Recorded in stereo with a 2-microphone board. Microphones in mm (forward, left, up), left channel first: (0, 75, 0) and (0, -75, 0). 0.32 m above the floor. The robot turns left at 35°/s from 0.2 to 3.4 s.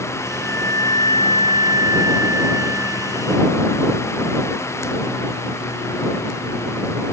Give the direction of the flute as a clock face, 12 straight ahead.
6 o'clock.